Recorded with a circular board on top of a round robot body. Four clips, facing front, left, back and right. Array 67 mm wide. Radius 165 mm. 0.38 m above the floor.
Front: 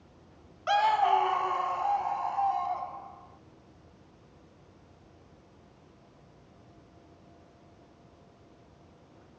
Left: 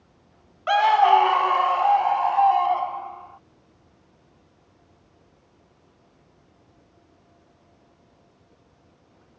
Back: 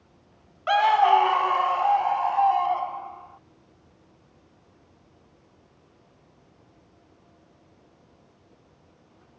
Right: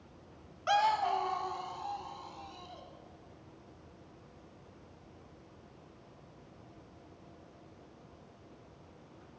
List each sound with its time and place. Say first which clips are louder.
0.7 s a scream: left 12 dB, back 6 dB; 125° left; by 3.4 s 115° left